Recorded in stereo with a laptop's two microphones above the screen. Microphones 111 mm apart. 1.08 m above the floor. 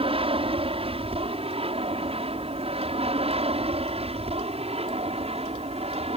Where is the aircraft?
55° right (ahead or behind); by 6.2 s 65° right (ahead or behind).